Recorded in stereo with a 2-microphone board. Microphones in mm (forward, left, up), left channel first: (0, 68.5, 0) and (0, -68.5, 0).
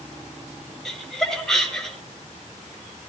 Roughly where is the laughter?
Centre.